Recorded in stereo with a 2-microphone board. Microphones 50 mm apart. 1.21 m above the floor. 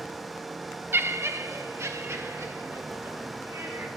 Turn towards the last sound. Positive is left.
turn(degrees=-70)  # may be behind; listen again after turning